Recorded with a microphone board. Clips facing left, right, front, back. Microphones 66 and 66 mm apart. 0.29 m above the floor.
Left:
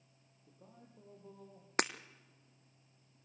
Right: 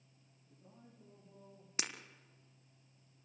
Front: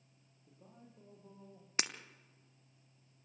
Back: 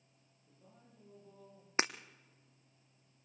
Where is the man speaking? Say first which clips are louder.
Left 1 dB, front 4 dB; 65° left, 9 m; by 1.7 s 55° left, 8.5 m.